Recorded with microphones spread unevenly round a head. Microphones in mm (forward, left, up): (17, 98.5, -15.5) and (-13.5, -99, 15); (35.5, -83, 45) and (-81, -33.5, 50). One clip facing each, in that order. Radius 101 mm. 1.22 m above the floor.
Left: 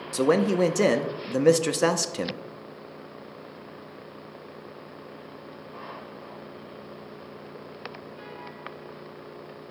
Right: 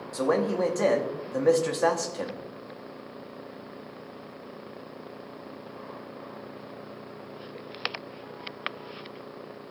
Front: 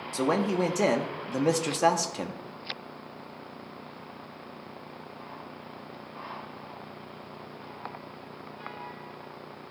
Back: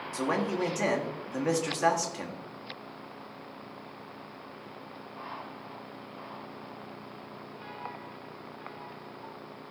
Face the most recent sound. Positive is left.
turn(degrees=40)